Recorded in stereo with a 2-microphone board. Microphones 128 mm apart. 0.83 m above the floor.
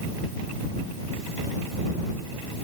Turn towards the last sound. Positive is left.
No sound to turn to.